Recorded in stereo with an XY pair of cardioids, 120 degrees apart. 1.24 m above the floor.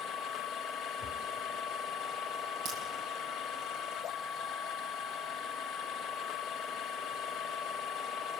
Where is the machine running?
65° left, 1.0 m.